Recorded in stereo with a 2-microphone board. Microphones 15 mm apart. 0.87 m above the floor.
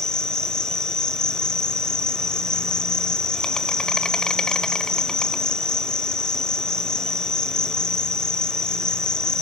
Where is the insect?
60° left (ahead or behind), 1.0 m.